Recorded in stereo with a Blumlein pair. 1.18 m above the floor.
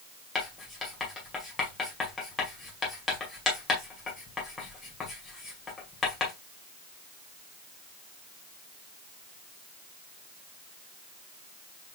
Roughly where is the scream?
I don't hear a scream.